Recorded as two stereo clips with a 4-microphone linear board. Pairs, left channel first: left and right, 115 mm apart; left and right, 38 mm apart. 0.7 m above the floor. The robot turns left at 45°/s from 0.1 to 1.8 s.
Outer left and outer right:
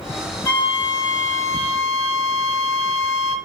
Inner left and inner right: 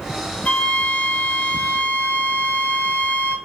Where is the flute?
145° left, 4 m; by 3.4 s 85° left, 4 m.